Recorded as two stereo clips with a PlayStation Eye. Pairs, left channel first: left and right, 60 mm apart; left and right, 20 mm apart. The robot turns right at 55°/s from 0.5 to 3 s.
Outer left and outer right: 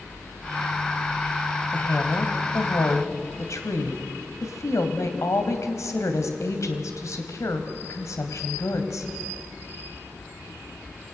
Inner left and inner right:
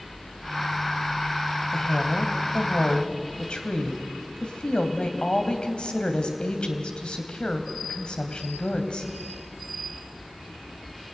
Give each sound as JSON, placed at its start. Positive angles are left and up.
{"t": 1.7, "sound": "a woman speaking", "azimuth_deg": 30, "distance_m": 2.5}